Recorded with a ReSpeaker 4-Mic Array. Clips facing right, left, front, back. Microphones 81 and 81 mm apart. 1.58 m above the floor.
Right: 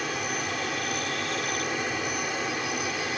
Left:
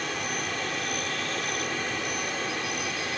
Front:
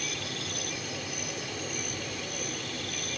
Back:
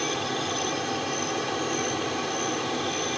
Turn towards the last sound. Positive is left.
turn(degrees=-170)